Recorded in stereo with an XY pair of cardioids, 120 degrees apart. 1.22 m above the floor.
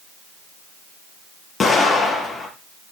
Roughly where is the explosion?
Ahead left.